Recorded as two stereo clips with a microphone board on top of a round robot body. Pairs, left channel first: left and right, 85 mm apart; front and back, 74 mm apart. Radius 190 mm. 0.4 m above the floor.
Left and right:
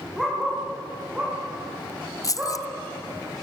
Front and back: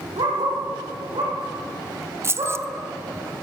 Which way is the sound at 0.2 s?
175° right.